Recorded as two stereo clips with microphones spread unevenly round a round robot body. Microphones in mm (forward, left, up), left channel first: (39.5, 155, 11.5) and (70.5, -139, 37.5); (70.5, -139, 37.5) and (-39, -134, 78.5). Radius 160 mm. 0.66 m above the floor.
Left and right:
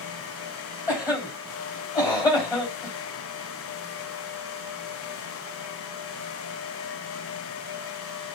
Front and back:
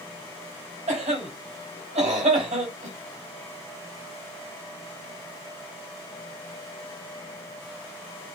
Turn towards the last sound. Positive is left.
turn(degrees=175)